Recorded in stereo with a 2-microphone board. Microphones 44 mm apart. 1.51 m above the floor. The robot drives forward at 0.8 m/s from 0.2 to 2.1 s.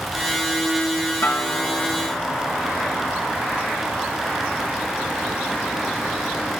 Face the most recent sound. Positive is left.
turn(degrees=85)